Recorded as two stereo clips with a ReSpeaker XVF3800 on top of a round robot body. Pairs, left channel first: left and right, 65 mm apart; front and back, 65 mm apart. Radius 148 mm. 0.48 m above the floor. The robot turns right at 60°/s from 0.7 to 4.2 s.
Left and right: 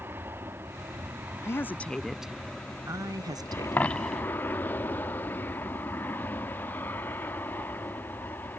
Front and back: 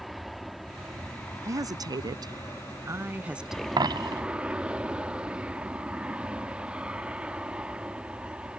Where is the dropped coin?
155° left; by 4.2 s 175° right.